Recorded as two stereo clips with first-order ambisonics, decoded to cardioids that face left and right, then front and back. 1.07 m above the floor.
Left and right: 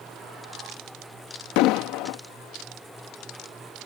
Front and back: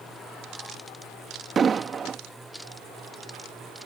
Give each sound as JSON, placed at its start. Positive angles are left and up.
{"t": 1.6, "sound": "an explosion", "azimuth_deg": 110}